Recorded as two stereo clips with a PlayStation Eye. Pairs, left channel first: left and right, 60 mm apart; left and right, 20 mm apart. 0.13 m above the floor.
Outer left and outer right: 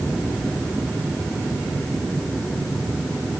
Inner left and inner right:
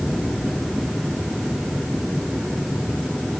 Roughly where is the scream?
No scream in this recording.